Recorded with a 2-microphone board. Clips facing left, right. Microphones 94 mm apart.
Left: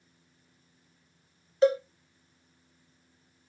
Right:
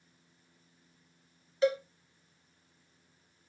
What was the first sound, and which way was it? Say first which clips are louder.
A cowbell: left 5 dB; 35° left (ahead or behind).